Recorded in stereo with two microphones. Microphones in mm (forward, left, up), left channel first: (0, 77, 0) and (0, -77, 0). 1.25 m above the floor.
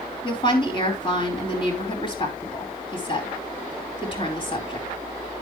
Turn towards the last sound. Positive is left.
turn(degrees=35)  # may be behind; listen again after turning